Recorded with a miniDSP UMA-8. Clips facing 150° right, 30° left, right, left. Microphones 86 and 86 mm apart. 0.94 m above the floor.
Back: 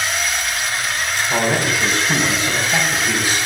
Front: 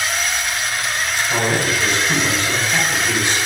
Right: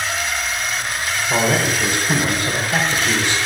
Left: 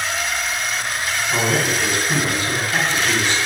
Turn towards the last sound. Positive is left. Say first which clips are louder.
# back 1 dB, right 2 dB
turn(degrees=-70)